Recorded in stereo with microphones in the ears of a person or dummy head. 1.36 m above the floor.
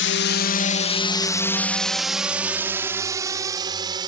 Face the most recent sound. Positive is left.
turn(degrees=-25)  # may be behind; listen again after turning